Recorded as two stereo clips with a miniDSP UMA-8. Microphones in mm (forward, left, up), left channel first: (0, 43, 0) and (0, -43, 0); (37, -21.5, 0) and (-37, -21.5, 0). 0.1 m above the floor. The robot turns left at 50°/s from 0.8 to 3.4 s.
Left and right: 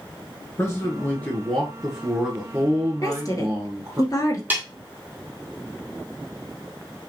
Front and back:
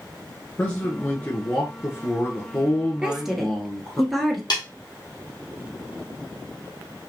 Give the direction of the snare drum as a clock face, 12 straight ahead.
1 o'clock.